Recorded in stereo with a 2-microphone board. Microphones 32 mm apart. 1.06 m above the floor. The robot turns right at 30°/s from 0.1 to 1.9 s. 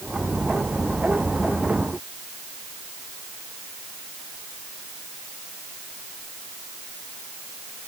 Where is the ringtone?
No ringtone in this recording.